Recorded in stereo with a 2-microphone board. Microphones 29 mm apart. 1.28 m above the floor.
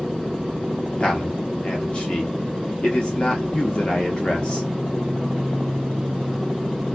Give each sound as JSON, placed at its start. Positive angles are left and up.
{"t": 1.0, "sound": "a man speaking", "side_deg": 35, "distance_m": 1.0}